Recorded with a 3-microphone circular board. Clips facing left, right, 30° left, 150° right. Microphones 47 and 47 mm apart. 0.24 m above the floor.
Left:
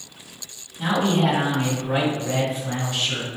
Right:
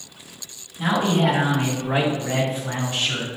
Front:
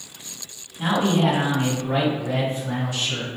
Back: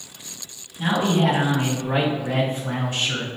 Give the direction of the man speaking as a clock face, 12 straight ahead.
12 o'clock.